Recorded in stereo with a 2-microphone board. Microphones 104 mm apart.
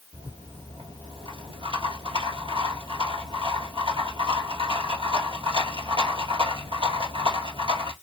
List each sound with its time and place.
0.1 s a rattle: 60° right (ahead or behind), 1.8 m